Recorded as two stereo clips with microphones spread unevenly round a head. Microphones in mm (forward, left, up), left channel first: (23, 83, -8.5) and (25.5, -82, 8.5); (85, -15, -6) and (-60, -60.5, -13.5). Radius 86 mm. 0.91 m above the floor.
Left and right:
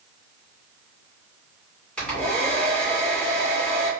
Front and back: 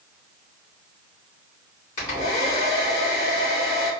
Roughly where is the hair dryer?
Ahead.